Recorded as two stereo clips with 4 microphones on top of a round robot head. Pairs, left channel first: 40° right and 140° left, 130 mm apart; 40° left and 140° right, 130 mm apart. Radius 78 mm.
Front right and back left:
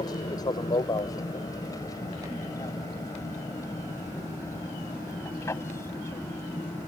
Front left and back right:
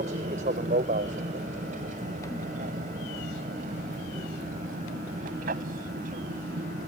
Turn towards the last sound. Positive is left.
turn(degrees=-115)